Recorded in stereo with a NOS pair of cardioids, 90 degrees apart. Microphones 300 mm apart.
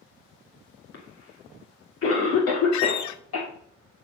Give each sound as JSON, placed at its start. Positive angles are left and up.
{"t": 0.9, "sound": "a cough", "azimuth_deg": 50, "distance_m": 2.5}
{"t": 2.7, "sound": "a squeak", "azimuth_deg": 70, "distance_m": 0.7}